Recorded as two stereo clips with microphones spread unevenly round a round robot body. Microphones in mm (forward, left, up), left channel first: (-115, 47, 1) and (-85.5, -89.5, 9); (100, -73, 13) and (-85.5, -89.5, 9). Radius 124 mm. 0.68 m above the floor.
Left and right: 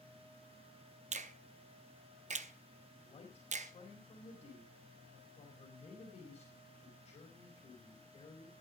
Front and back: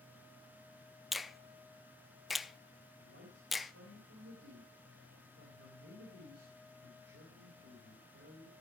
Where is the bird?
No bird in this recording.